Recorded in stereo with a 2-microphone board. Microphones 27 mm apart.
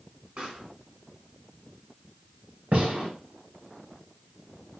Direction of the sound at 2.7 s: 70° right (ahead or behind).